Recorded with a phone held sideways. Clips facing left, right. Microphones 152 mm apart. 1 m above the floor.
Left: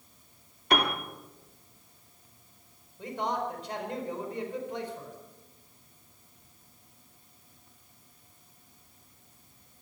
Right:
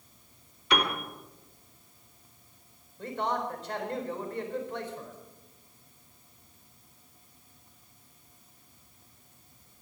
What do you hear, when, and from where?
0.7 s a piano: 50° left (ahead or behind), 2.5 m
3.0 s a man speaking: 15° left (ahead or behind), 4.5 m